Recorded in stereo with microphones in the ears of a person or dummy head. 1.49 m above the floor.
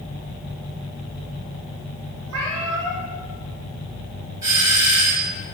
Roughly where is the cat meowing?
Right.